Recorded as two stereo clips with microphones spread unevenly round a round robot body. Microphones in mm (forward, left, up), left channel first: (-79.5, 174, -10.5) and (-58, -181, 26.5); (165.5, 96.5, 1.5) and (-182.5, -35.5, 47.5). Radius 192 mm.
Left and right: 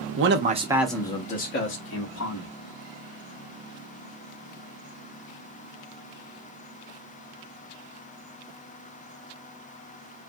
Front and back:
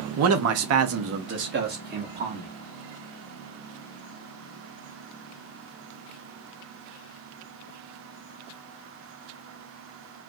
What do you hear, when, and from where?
0.2 s a man speaking: 120° right, 0.6 m; by 2.5 s 125° left, 1.2 m